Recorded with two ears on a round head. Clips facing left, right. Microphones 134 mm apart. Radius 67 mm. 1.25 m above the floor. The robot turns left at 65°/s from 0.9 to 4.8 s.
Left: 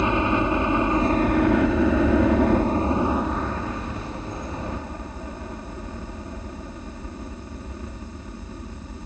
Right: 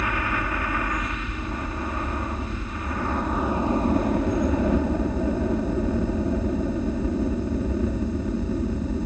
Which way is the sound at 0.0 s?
155° left.